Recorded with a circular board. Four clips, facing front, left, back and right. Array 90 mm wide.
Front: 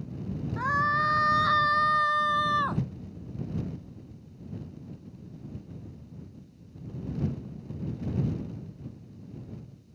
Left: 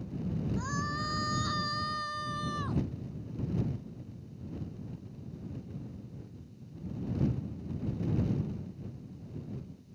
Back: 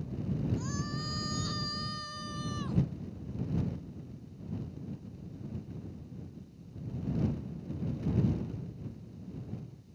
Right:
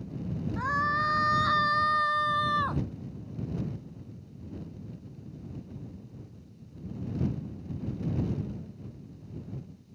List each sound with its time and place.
0.6 s a scream: 30° right; by 2.8 s 35° right